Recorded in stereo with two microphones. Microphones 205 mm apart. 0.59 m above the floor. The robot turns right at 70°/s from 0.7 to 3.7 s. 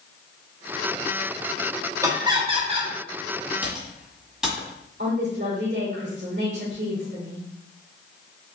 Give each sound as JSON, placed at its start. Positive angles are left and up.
{"t": 2.0, "sound": "laughter", "side_deg": -15, "distance_m": 1.1}
{"t": 3.6, "sound": "typing on a keyboard", "side_deg": -10, "distance_m": 1.8}
{"t": 5.0, "sound": "a woman speaking", "side_deg": -50, "distance_m": 1.6}